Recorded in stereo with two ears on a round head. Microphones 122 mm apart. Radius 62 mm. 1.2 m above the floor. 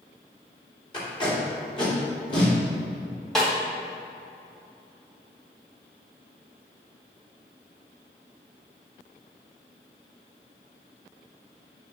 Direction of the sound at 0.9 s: 35° left (ahead or behind).